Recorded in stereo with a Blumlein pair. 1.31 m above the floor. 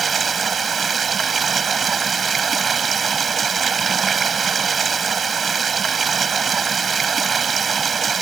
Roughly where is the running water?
Ahead.